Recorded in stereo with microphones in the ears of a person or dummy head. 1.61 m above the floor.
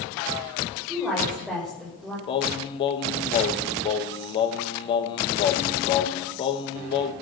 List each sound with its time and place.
0.9 s a woman speaking: 5° right (ahead or behind), 6 m
2.3 s singing: 25° left (ahead or behind), 0.9 m